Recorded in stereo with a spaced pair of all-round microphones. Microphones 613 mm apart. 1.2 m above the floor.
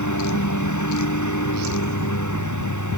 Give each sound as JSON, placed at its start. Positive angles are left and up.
{"t": 0.0, "sound": "a lawn mower", "side_deg": 30}